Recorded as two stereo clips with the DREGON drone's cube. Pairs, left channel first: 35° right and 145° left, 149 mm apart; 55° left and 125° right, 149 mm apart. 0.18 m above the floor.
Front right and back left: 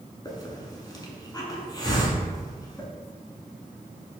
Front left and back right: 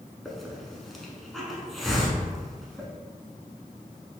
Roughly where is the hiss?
Ahead right.